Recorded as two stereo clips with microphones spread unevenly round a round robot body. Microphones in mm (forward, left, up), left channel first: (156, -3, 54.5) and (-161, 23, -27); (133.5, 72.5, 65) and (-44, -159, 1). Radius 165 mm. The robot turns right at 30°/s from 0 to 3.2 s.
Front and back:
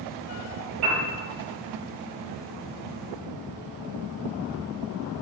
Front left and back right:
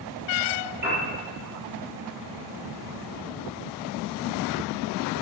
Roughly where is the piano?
Behind.